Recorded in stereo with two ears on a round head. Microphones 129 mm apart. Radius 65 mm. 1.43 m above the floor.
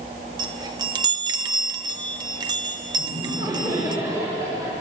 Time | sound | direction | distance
0.4 | a chime | 30° right (ahead or behind) | 1.1 m
3.0 | laughter | 25° right (ahead or behind) | 7.5 m